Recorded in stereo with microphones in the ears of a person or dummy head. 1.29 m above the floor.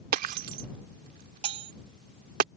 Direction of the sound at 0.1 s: 50° right (ahead or behind).